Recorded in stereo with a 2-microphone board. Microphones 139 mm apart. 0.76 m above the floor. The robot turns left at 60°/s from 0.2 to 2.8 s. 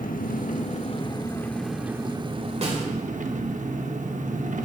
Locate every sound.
0.0 s an engine running: 90° left, 0.8 m; by 4.7 s 70° right, 0.8 m
2.6 s a snare drum: 50° right (ahead or behind), 1.8 m; by 2.9 s 40° right (ahead or behind), 1.8 m